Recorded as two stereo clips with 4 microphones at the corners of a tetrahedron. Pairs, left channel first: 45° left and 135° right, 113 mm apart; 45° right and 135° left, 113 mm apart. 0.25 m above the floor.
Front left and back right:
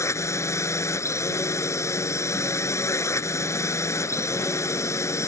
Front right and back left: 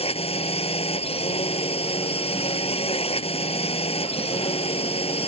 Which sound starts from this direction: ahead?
A drone, at 0.0 s.